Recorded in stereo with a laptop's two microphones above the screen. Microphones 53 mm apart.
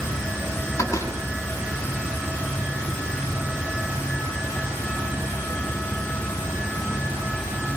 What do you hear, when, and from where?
0.8 s a door slam: 85° left, 6 m